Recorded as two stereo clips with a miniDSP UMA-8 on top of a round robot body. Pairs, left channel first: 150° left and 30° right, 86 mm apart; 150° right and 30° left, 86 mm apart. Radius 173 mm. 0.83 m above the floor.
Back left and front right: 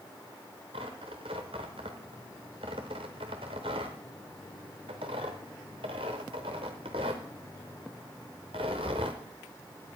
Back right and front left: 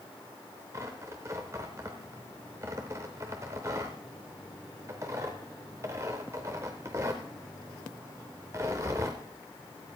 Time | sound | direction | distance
0.7 | tearing paper | 25° right | 0.6 m